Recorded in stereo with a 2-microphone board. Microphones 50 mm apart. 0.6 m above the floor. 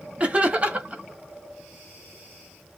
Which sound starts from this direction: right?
Laughter, at 0.2 s.